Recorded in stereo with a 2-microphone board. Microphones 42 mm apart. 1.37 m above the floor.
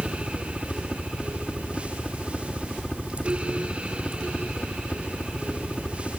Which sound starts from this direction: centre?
A helicopter, at 0.0 s.